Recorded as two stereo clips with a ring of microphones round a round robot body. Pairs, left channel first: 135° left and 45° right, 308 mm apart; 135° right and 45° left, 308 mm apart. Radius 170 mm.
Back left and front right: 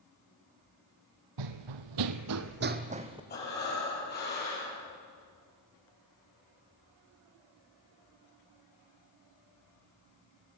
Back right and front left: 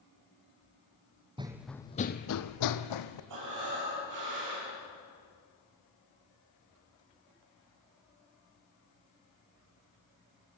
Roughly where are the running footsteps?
Ahead right.